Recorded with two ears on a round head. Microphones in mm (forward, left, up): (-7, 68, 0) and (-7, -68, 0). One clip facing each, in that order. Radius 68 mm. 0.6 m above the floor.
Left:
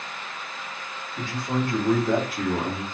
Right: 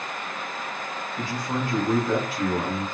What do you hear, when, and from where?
1.2 s a man speaking: 30° left (ahead or behind), 2.5 m; by 2.8 s 50° left (ahead or behind), 1.3 m